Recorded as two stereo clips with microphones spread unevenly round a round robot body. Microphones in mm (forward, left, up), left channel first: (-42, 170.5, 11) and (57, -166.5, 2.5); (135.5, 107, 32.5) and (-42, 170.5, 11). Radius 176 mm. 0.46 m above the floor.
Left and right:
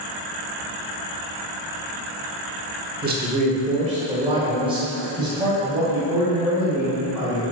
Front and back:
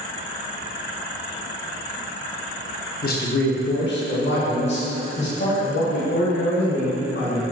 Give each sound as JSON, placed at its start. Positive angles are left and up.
{"t": 3.0, "sound": "a man speaking", "azimuth_deg": -25, "distance_m": 0.9}